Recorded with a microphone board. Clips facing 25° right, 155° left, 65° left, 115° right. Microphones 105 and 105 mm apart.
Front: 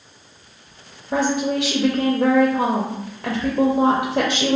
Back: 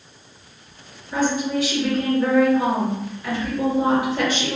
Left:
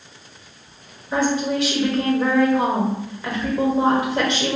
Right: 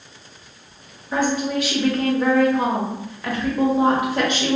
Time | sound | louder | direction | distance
1.1 | a woman speaking | front 2 dB, left 1 dB | 20° right | 0.7 m